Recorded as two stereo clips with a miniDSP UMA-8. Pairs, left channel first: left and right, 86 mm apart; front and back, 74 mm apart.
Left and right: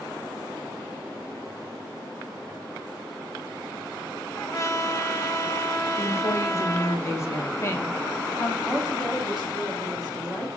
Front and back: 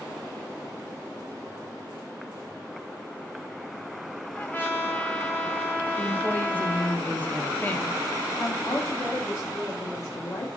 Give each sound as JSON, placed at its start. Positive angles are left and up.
{"t": 4.3, "sound": "a trumpet", "azimuth_deg": 55, "distance_m": 0.7}
{"t": 6.0, "sound": "a woman speaking", "azimuth_deg": 55, "distance_m": 0.7}
{"t": 8.6, "sound": "a woman speaking", "azimuth_deg": -5, "distance_m": 1.1}